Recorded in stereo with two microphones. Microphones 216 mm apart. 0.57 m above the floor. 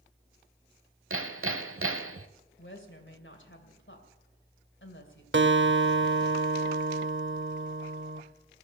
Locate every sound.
1.1 s hammering: 75° right (ahead or behind), 0.7 m
2.6 s a woman speaking: 60° left (ahead or behind), 2.5 m
5.3 s a guitar: 60° right (ahead or behind), 0.8 m